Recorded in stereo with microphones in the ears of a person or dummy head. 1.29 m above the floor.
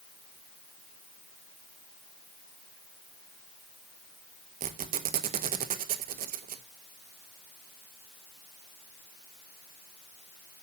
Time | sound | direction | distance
4.6 | a squeak | 35° right (ahead or behind) | 0.8 m